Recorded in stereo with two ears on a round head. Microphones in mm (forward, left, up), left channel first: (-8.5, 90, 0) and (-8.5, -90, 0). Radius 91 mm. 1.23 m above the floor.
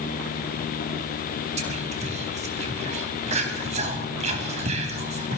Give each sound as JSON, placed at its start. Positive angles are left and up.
{"t": 1.6, "sound": "whispering", "side_deg": -35, "distance_m": 2.5}